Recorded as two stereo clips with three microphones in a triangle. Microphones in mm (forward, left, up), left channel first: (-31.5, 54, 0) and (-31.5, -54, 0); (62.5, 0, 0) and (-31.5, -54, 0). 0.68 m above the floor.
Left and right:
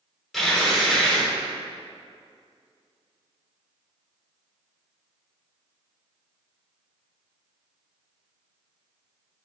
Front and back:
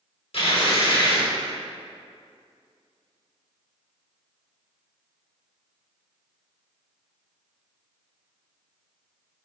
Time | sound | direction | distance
0.3 | tearing paper | straight ahead | 1.0 m